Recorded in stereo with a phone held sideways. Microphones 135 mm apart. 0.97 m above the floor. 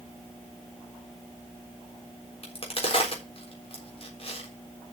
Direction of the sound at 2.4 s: 45° left (ahead or behind).